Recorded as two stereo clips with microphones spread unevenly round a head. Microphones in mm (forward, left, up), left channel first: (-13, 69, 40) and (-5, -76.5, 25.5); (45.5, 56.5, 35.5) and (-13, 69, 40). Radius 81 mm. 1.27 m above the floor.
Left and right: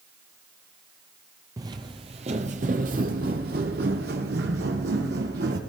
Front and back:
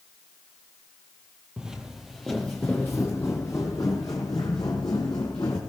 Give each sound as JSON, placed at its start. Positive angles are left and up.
{"t": 1.6, "sound": "footsteps", "azimuth_deg": -140, "distance_m": 1.3}